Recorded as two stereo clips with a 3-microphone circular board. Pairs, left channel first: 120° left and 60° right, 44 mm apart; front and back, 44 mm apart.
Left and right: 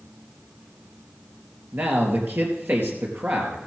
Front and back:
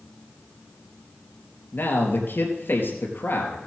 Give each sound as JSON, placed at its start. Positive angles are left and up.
{"t": 1.7, "sound": "a man speaking", "azimuth_deg": -25, "distance_m": 3.5}